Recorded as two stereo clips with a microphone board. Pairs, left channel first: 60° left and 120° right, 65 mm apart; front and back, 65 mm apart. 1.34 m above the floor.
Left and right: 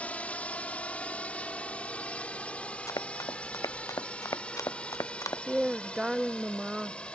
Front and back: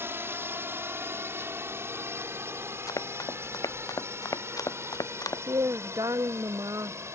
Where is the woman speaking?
160° left.